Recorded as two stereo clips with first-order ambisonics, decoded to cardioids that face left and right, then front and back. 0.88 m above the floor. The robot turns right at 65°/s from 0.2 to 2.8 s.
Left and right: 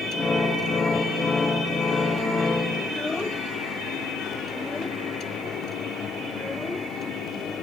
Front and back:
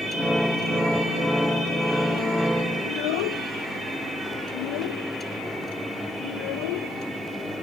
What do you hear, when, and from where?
2.8 s a child speaking: 10° left